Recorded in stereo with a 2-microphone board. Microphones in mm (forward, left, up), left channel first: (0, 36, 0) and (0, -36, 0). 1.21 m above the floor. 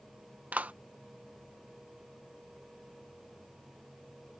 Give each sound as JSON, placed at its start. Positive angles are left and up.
{"t": 0.5, "sound": "a clap", "side_deg": -20}